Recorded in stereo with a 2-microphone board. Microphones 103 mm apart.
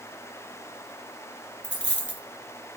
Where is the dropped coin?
15° right (ahead or behind), 1.4 m.